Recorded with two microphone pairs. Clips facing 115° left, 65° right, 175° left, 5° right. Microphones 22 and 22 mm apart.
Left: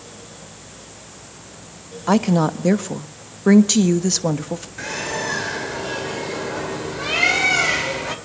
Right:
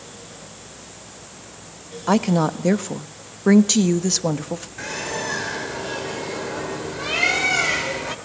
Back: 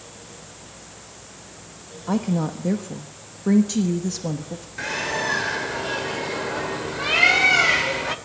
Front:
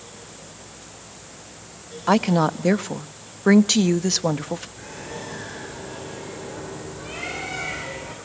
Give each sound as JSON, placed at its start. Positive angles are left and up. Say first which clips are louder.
{"t": 2.1, "sound": "a woman speaking", "louder": "left 1 dB, front 5 dB", "azimuth_deg": 25, "distance_m": 1.0}
{"t": 4.8, "sound": "a bird", "louder": "left 2 dB, back 10 dB", "azimuth_deg": -160, "distance_m": 1.9}